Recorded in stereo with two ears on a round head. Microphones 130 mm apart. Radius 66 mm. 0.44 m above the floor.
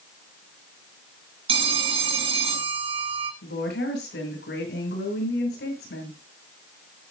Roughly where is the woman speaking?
Left.